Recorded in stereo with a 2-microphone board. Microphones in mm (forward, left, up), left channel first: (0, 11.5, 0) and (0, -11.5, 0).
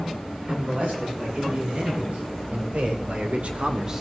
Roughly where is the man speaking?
Right.